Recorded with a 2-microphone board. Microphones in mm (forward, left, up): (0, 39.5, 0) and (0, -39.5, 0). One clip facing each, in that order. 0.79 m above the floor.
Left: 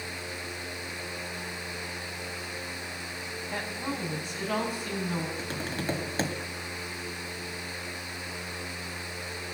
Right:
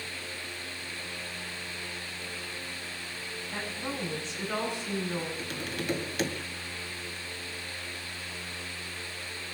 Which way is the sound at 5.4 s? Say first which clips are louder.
Left 2 dB; 35° left (ahead or behind).